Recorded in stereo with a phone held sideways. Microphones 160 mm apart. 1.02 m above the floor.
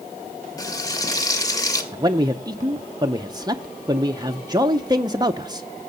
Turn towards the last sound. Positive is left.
turn(degrees=-25)  # may be behind; listen again after turning